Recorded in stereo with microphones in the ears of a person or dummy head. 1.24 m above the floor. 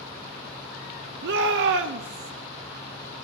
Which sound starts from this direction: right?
A shout, at 1.2 s.